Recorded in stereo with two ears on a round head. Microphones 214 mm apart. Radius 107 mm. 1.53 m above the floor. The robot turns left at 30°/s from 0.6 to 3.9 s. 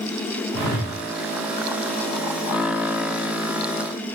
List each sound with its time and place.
0.5 s a whoosh: 50° left (ahead or behind), 0.7 m; by 1.0 s 45° left (ahead or behind), 0.7 m